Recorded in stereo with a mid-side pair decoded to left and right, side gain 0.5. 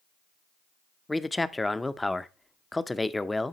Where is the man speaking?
10° left, 0.5 m.